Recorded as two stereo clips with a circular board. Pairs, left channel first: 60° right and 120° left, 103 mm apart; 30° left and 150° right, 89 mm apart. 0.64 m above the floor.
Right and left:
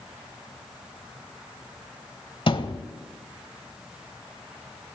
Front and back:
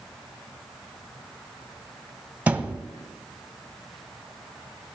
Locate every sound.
2.5 s a thud: 80° right, 0.7 m